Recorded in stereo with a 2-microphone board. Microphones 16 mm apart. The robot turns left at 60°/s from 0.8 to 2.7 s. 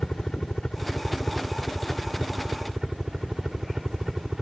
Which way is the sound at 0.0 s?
65° left.